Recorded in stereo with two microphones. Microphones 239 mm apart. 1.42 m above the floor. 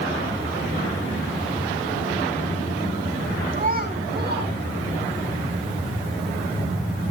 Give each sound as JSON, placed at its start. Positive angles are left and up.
{"t": 3.5, "sound": "a child speaking", "side_deg": -40, "distance_m": 5.0}